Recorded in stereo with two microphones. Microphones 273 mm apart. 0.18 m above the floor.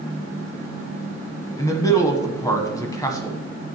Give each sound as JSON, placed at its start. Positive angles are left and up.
{"t": 1.6, "sound": "a man speaking", "side_deg": 10, "distance_m": 1.1}